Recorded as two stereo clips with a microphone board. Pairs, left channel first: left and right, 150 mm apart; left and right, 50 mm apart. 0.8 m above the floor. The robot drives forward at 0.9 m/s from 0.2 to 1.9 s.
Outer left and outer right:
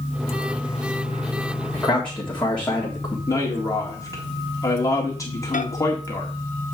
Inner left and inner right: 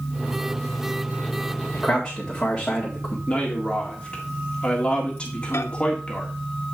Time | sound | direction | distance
1.7 | a man speaking | 10° left (ahead or behind) | 1.7 m
3.3 | a man speaking | 20° left (ahead or behind) | 1.7 m
5.5 | a microwave | 60° left (ahead or behind) | 0.8 m